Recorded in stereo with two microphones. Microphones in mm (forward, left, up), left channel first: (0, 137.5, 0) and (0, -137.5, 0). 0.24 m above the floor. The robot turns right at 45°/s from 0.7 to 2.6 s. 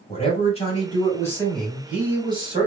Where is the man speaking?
135° left, 1.7 m; by 2.7 s 135° right, 1.7 m.